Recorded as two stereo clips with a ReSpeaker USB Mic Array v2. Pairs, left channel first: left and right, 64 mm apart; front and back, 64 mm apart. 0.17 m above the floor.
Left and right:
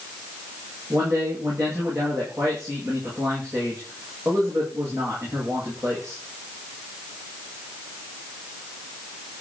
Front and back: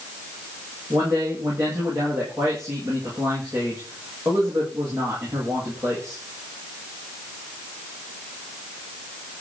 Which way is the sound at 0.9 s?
130° right.